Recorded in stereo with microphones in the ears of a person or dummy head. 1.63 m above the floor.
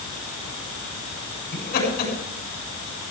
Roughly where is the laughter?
Left.